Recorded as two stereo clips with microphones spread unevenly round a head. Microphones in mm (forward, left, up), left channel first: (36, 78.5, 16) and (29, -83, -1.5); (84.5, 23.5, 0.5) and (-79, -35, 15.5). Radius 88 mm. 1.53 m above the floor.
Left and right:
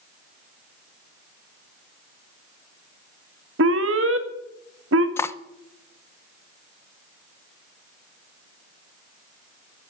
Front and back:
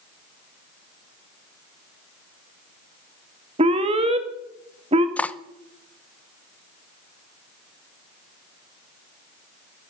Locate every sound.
3.6 s an alarm: 105° right, 1.8 m
5.2 s cutlery clinking: 100° left, 0.6 m